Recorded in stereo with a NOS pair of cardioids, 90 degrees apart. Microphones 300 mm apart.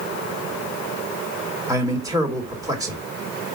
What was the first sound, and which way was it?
A man speaking, 10° right.